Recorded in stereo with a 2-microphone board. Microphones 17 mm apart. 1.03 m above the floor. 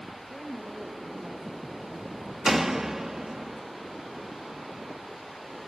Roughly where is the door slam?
Right.